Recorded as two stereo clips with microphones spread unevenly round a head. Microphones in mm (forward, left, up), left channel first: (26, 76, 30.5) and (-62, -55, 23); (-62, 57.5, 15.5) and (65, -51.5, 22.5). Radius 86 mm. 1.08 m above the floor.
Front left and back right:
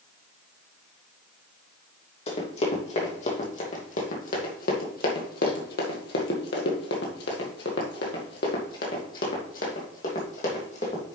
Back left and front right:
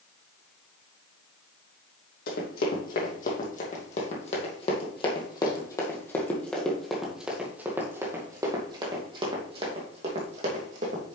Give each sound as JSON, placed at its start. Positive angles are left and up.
{"t": 2.3, "sound": "running footsteps", "azimuth_deg": 105, "distance_m": 3.0}